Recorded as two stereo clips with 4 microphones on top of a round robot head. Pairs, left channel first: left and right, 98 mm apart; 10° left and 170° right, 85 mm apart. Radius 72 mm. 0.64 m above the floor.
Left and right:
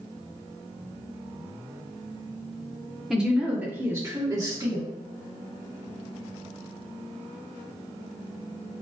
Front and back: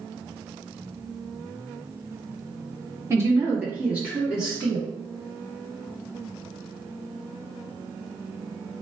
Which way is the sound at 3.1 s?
175° right.